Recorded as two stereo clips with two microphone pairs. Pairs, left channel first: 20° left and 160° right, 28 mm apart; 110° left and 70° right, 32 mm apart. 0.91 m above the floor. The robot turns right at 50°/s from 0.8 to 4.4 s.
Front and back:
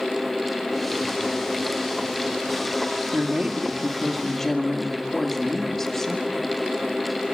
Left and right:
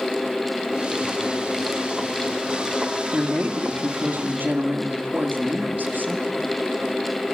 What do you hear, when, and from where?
3.1 s a woman speaking: 115° right, 1.9 m; by 6.5 s 50° right, 1.9 m